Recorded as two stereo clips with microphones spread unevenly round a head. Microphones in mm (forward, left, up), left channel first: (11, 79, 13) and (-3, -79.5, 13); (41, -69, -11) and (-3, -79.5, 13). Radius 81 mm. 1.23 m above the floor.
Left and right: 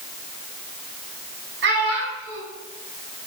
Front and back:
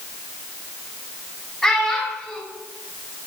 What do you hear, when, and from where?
1.6 s a child speaking: 75° right, 1.3 m